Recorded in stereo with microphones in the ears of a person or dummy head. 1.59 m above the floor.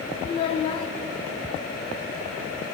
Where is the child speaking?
30° left (ahead or behind), 0.9 m.